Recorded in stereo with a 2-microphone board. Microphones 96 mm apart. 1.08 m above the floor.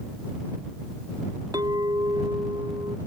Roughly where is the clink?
Right.